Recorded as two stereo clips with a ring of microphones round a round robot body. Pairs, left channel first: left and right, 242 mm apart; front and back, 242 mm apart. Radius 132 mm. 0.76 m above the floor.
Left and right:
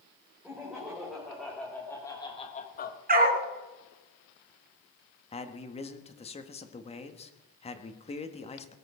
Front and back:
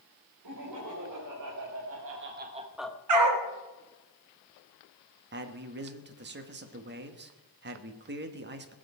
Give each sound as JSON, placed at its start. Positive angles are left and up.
{"t": 0.4, "sound": "laughter", "azimuth_deg": -175, "distance_m": 3.5}
{"t": 3.1, "sound": "a dog barking", "azimuth_deg": -145, "distance_m": 2.0}
{"t": 5.3, "sound": "a man speaking", "azimuth_deg": 150, "distance_m": 1.5}